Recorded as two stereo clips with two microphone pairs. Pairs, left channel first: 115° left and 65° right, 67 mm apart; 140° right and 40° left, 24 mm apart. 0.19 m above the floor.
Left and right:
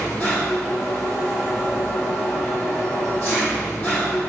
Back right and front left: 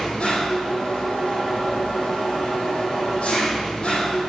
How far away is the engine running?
About 5 m.